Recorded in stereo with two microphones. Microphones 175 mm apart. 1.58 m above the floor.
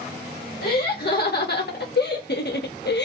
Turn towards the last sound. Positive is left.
turn(degrees=80)